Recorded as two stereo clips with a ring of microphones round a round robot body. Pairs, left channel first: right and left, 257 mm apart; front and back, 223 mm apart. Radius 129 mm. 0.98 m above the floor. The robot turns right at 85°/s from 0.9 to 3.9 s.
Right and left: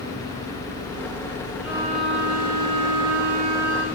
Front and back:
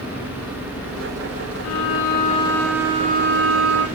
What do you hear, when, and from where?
1.6 s a violin: straight ahead, 3.5 m; by 3.9 s 170° right, 3.5 m